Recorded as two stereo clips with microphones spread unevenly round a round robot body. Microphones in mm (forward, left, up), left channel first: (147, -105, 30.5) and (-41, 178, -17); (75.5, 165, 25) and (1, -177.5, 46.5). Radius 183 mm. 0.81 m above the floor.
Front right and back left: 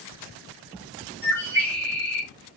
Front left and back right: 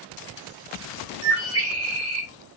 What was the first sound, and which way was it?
A bird, 145° right.